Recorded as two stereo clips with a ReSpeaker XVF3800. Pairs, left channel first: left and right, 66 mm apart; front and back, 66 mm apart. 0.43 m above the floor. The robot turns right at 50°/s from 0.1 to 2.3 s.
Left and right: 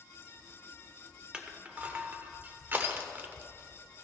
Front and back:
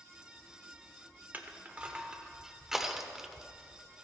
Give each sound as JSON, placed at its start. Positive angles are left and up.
{"t": 1.3, "sound": "crushing", "azimuth_deg": -150, "distance_m": 1.0}